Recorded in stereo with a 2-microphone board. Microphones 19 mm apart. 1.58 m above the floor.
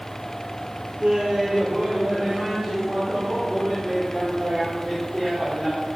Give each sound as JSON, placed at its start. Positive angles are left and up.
{"t": 1.0, "sound": "laughter", "side_deg": -55, "distance_m": 3.0}